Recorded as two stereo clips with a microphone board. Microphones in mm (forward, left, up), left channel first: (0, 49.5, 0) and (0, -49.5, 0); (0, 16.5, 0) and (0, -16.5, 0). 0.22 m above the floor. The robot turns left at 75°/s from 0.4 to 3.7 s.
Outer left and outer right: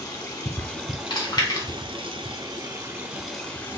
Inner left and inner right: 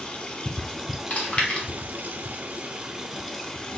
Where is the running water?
35° left, 1.0 m; by 3.8 s 150° left, 1.0 m.